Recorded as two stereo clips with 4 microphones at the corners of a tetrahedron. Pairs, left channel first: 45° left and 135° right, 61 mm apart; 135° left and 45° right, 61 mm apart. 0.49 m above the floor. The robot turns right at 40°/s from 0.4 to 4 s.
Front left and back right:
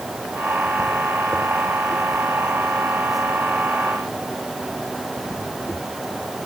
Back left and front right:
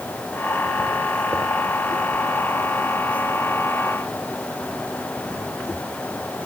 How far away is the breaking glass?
No breaking glass in this recording.